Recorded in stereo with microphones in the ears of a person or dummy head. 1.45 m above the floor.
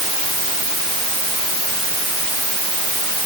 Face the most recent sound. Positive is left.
No sound to turn to.